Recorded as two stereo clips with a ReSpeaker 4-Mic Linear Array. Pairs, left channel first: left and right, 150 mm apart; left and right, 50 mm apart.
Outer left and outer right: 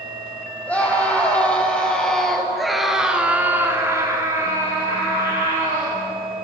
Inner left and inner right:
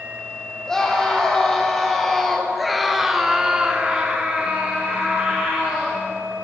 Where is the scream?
10° left (ahead or behind), 4.5 m; by 6.0 s 15° right (ahead or behind), 4 m.